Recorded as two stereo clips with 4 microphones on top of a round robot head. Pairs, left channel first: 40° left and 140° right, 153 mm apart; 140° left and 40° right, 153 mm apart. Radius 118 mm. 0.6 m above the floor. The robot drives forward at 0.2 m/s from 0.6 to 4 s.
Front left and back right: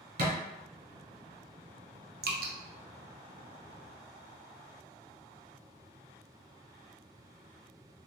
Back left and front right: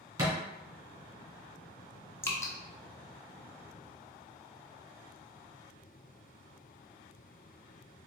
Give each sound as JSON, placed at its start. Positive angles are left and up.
{"t": 0.2, "sound": "a thud", "azimuth_deg": -110, "distance_m": 2.5}
{"t": 2.2, "sound": "dripping", "azimuth_deg": -145, "distance_m": 1.0}